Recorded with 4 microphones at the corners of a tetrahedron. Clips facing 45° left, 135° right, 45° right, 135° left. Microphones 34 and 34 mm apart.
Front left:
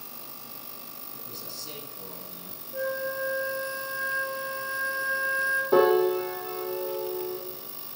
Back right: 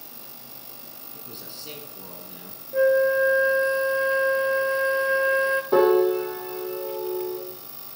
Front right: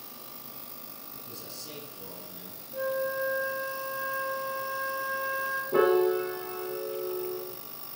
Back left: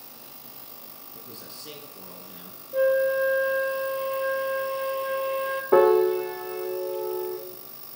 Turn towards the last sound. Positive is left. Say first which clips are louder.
# back right 2 dB, back left 5 dB
turn(degrees=140)